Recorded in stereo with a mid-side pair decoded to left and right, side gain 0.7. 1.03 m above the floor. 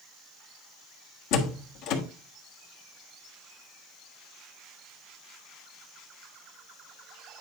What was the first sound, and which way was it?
A door slam, 65° left.